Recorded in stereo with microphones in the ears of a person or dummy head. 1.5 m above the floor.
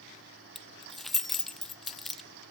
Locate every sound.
0.6 s keys jangling: 5° left (ahead or behind), 0.7 m